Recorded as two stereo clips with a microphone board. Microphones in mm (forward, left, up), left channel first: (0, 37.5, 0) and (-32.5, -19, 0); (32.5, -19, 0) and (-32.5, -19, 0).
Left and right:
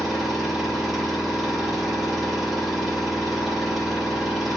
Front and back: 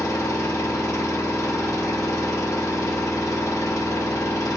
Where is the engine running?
30° right, 1.4 m.